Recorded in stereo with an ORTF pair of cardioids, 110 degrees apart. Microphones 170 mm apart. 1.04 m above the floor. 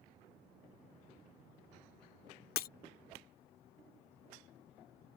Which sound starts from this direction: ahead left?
Breaking glass, at 2.6 s.